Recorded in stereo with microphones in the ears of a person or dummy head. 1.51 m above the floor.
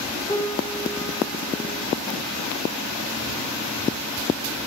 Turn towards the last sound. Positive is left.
turn(degrees=20)  # may be behind; listen again after turning